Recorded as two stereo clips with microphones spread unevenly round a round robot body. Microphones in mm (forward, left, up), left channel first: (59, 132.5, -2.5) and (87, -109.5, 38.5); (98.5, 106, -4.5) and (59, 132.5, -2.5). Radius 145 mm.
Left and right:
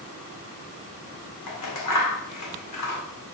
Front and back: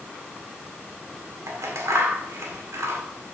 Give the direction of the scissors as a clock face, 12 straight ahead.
8 o'clock.